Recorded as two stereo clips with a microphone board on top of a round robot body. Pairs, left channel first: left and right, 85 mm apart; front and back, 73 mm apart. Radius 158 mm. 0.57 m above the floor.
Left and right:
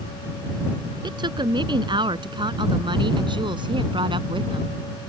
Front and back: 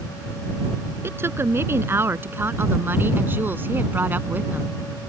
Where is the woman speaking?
120° right; by 4.8 s 115° right.